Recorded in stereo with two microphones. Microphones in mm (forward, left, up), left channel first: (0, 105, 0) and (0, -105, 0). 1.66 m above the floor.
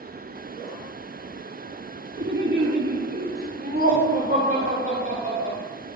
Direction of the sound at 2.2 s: 65° right (ahead or behind).